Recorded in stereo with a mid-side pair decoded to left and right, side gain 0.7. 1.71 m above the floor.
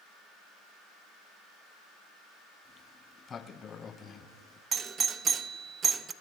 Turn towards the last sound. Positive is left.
turn(degrees=-30)